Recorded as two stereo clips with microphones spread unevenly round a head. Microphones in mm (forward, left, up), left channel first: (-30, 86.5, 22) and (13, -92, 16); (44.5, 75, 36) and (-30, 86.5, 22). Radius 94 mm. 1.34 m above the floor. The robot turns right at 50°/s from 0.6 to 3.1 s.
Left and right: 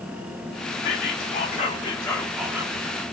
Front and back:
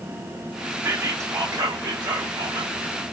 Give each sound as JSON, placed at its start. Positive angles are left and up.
{"t": 0.8, "sound": "whispering", "azimuth_deg": 125, "distance_m": 0.7}